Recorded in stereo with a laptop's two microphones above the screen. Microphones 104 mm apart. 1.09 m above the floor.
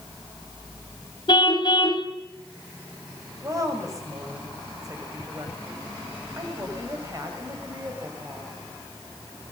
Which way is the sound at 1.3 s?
50° left (ahead or behind).